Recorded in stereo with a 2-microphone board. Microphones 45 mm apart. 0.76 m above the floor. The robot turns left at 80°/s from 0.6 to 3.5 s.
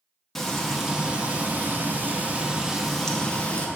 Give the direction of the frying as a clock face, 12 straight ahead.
12 o'clock.